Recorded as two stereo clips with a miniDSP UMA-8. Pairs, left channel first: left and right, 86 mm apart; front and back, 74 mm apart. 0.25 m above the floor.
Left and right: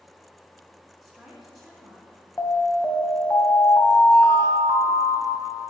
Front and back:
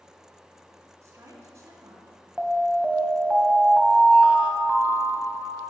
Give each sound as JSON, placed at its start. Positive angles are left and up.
{"t": 1.0, "sound": "a woman speaking", "azimuth_deg": -175, "distance_m": 1.9}
{"t": 2.4, "sound": "an alarm", "azimuth_deg": 120, "distance_m": 0.9}